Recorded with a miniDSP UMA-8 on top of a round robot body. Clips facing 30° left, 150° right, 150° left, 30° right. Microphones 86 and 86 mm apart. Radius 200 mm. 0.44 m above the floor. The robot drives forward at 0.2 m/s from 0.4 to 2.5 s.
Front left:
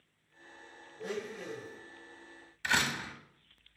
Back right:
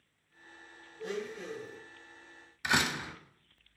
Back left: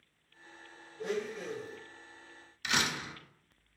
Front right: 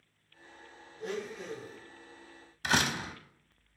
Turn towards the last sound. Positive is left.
turn(degrees=-75)